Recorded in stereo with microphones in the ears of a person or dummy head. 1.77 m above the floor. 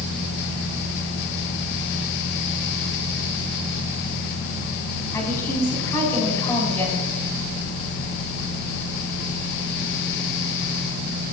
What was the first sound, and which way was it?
A woman speaking, 10° left (ahead or behind).